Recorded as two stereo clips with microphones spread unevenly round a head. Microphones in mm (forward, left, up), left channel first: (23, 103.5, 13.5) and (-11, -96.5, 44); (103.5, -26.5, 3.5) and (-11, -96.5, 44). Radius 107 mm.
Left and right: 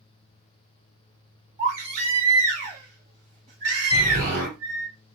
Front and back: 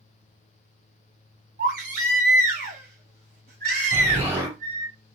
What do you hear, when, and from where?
1.6 s a baby crying: 155° right, 1.4 m
3.9 s an explosion: 100° right, 1.6 m